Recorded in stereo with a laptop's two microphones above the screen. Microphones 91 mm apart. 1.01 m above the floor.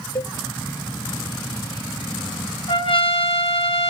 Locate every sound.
0.1 s a cowbell: 45° left (ahead or behind), 0.6 m
2.7 s a trumpet: 75° left (ahead or behind), 0.7 m